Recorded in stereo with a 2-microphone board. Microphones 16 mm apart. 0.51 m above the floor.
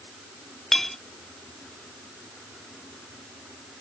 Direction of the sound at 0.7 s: 25° left (ahead or behind).